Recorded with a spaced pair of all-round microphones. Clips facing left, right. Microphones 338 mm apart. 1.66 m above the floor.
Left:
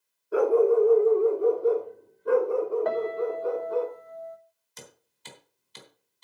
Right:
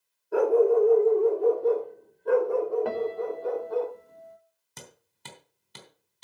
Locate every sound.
0.3 s a dog barking: 5° left (ahead or behind), 1.5 m; by 3.9 s 10° left (ahead or behind), 4 m
2.9 s a piano: 40° right (ahead or behind), 1.2 m
4.8 s hammering: 65° right (ahead or behind), 3 m